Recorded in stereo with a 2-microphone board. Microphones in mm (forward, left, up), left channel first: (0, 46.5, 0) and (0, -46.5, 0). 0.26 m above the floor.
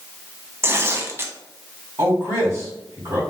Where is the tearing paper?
30° right (ahead or behind), 0.5 m.